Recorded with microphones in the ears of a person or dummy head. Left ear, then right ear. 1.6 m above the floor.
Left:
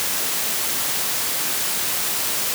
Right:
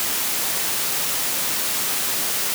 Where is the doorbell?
I don't hear a doorbell.